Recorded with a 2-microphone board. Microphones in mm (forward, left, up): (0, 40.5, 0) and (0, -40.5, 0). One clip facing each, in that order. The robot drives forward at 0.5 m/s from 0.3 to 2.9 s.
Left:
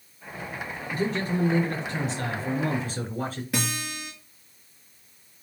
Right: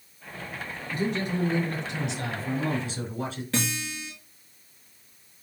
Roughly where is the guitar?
Centre.